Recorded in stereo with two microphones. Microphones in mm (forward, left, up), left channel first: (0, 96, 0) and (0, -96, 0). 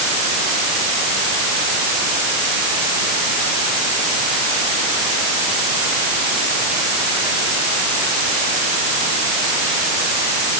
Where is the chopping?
No chopping in this recording.